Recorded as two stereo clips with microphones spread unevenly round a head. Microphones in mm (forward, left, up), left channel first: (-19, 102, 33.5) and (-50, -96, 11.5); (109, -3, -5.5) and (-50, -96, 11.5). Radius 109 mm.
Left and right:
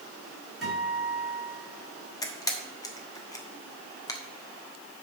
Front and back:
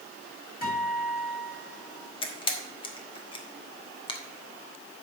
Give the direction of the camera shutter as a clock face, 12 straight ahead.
10 o'clock.